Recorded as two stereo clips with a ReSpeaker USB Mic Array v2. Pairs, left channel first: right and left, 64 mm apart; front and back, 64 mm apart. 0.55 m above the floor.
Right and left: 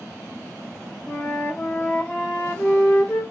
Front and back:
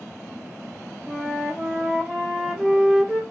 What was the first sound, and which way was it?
A flute, 130° right.